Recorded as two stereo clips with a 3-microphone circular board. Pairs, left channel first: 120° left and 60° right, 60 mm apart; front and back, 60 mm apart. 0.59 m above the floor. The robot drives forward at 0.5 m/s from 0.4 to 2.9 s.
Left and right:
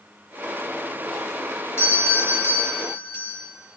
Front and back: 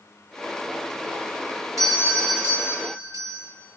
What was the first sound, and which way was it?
A doorbell, 170° left.